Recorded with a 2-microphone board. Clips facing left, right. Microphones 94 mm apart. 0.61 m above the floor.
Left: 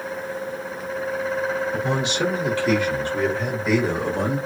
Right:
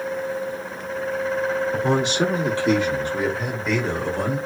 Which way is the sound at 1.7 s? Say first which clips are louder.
Right 3 dB; 45° right (ahead or behind).